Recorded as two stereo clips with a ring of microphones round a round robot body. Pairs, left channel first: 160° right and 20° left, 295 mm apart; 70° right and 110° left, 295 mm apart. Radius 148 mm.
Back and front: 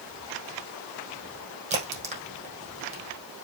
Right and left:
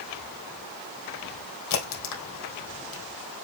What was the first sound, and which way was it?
A crack, 45° right.